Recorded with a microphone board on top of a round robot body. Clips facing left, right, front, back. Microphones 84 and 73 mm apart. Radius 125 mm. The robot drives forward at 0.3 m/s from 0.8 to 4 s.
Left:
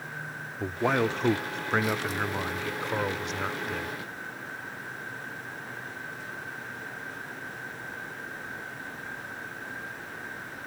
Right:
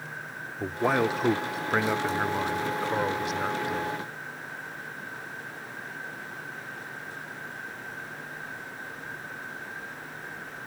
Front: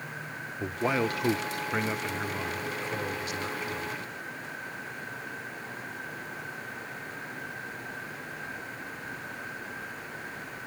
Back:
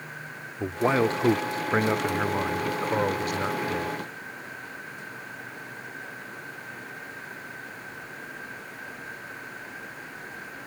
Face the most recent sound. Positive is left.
turn(degrees=-175)